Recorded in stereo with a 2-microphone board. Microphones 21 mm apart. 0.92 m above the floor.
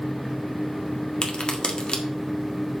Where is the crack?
45° left (ahead or behind), 1.6 m.